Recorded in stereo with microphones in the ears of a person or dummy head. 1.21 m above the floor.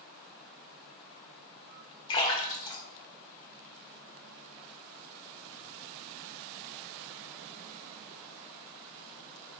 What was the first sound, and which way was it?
A splash, 25° left (ahead or behind).